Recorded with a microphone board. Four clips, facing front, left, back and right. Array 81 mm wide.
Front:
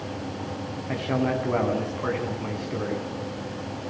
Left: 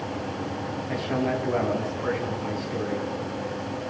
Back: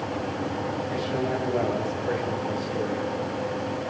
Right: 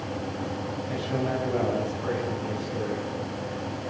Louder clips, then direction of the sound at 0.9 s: Left 3 dB, front 5 dB; 20° left.